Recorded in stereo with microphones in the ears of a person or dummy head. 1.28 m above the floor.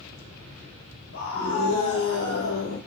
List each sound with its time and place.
1.1 s a scream: 85° left, 3 m; by 2.8 s 65° left (ahead or behind), 2.5 m